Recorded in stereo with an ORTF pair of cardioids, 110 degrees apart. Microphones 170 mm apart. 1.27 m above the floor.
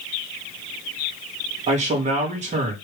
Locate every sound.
1.7 s a man speaking: 45° right, 3.5 m